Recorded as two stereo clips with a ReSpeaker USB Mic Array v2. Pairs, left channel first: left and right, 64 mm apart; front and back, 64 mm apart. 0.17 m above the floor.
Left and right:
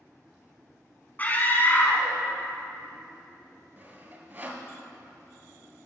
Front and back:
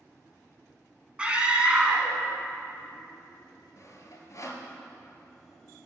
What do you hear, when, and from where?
1.2 s a scream: 120° left, 1.2 m
3.8 s sawing: 35° right, 1.2 m